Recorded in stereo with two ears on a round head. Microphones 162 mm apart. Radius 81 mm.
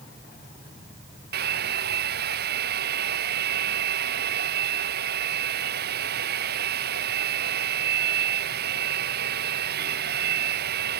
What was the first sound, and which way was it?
A hair dryer, 60° right (ahead or behind).